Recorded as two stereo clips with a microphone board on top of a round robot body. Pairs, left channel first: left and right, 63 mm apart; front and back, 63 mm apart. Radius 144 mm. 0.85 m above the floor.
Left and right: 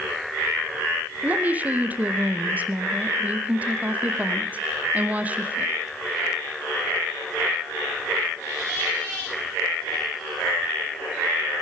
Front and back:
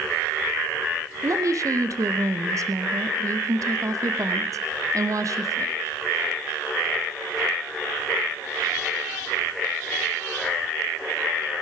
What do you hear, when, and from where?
1.2 s a woman speaking: 155° right, 1.0 m